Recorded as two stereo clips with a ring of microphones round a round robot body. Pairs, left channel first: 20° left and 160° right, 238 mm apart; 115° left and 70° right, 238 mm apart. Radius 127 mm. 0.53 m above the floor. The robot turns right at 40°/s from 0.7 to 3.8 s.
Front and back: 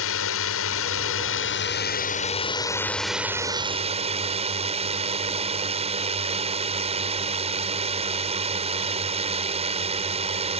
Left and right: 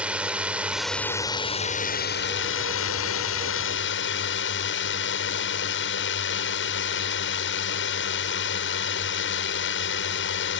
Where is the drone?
15° left; by 10.6 s 140° left.